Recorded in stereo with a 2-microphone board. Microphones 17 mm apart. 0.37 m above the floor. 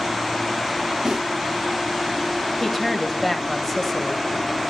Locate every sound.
1.1 s a snare drum: 25° right (ahead or behind), 9.5 m
2.6 s a woman speaking: 15° left (ahead or behind), 1.5 m